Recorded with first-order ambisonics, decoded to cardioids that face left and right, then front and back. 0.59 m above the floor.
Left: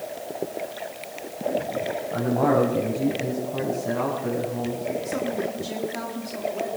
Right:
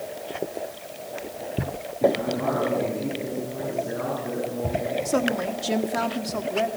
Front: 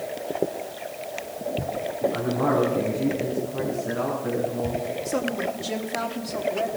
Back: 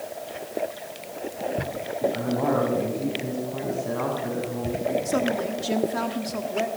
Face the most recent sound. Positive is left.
turn(degrees=-110)